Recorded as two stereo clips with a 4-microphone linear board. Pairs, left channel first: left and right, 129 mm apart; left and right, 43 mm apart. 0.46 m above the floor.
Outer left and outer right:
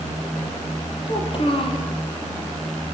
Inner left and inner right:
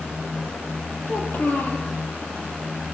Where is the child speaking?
40° left (ahead or behind), 7 m.